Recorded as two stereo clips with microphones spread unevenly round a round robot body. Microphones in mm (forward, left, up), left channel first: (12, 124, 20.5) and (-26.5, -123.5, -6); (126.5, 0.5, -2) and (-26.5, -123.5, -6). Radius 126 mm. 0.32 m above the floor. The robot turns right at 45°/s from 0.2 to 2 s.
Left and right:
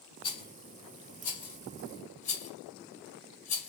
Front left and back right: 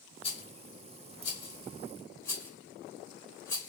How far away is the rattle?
About 0.9 m.